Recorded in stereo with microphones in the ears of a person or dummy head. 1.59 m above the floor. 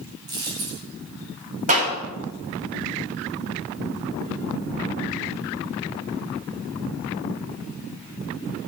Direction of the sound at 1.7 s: 40° right (ahead or behind).